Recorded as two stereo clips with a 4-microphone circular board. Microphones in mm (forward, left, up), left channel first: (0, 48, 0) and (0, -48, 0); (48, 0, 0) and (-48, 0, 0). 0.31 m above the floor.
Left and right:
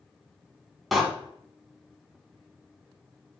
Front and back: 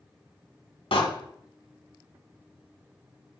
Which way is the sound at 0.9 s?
Straight ahead.